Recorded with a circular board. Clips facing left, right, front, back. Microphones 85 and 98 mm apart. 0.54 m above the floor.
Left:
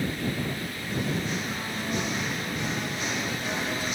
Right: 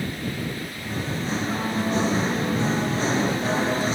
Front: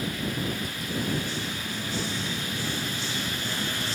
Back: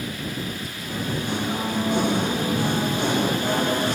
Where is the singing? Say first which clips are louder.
Right 1 dB, back 3 dB; 150° right.